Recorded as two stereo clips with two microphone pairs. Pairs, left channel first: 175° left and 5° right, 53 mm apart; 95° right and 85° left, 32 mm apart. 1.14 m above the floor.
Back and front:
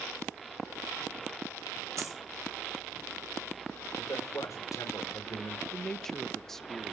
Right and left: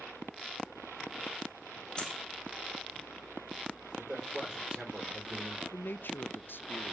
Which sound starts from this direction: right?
A man speaking, at 5.7 s.